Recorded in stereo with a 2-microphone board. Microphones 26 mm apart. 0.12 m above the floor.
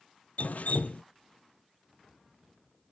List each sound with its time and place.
0.4 s dripping: 75° left (ahead or behind), 0.8 m